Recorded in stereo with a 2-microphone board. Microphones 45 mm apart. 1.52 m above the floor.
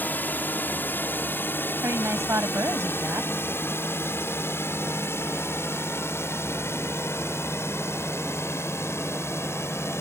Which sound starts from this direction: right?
A woman speaking, at 1.8 s.